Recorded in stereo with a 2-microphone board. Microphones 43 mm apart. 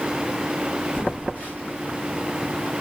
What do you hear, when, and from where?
0.9 s a phone buzzing: 45° left (ahead or behind), 1.3 m